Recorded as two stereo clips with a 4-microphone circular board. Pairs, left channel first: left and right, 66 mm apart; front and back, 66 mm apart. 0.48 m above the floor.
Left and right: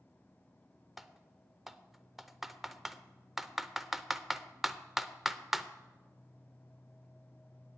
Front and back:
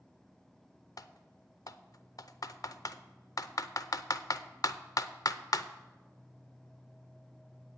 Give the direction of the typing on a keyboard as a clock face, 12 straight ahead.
12 o'clock.